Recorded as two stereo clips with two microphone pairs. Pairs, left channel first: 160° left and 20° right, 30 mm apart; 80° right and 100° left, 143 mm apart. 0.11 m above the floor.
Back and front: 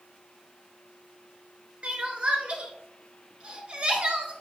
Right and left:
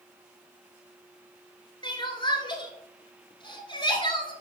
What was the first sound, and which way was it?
Crying, 45° right.